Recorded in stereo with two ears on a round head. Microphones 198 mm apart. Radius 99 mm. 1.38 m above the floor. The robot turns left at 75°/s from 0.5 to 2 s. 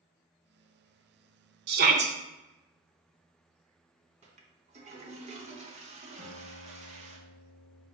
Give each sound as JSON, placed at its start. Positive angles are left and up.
{"t": 1.7, "sound": "a shout", "side_deg": -50, "distance_m": 0.7}
{"t": 4.2, "sound": "a toilet flushing", "side_deg": -30, "distance_m": 0.6}
{"t": 6.2, "sound": "a guitar", "side_deg": -55, "distance_m": 2.0}